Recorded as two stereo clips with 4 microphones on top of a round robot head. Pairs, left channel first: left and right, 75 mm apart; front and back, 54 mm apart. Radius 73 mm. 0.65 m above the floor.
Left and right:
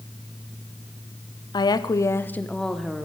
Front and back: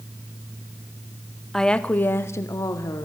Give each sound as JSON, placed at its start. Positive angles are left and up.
{"t": 1.5, "sound": "a woman speaking", "azimuth_deg": 85, "distance_m": 1.0}